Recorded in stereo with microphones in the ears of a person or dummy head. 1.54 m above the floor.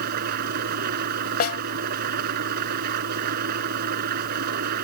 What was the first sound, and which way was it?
An engine running, 50° right (ahead or behind).